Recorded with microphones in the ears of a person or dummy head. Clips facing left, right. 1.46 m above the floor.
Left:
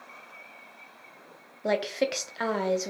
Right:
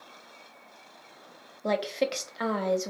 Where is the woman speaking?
5° left (ahead or behind), 0.5 m.